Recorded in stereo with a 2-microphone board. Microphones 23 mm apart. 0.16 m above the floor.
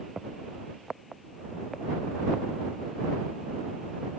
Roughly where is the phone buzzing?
I don't hear a phone buzzing.